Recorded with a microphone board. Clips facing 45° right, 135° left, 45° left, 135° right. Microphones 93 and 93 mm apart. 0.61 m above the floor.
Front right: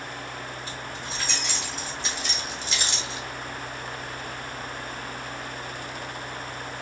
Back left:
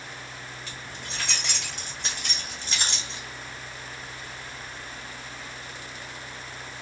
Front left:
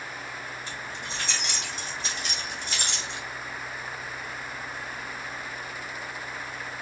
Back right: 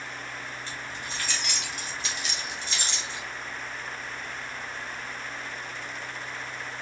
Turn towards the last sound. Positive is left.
turn(degrees=70)